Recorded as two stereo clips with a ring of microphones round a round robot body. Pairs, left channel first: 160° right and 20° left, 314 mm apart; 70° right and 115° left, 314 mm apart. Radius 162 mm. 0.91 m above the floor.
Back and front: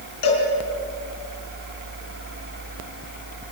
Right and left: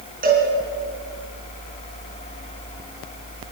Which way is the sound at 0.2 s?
175° left.